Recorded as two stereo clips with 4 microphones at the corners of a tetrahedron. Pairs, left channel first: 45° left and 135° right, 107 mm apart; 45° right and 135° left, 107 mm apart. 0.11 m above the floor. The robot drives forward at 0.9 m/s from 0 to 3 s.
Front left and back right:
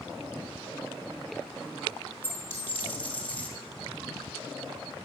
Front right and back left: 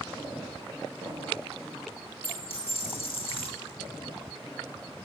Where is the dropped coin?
20° right, 2.5 m; by 3.5 s 30° right, 1.8 m.